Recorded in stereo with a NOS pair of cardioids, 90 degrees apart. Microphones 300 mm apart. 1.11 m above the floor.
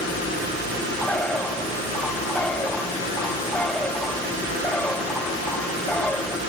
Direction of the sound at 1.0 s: 5° left.